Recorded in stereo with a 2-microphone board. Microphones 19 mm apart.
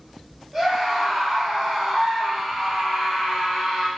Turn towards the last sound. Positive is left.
turn(degrees=-55)  # may be behind; listen again after turning